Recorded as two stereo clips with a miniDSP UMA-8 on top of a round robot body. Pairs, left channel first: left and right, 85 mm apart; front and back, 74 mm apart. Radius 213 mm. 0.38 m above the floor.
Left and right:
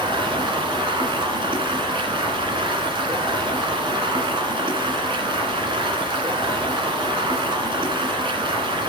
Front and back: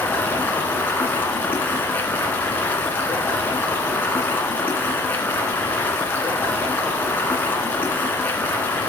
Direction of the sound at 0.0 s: 65° right.